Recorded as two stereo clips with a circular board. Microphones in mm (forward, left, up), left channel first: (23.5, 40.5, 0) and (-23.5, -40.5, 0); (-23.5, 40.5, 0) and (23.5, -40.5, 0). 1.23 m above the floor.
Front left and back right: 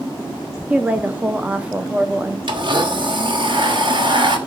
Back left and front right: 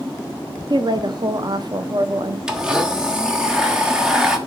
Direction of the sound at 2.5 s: 140° right.